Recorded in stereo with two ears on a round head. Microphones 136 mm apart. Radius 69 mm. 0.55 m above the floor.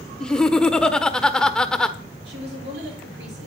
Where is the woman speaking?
75° right (ahead or behind), 8 m.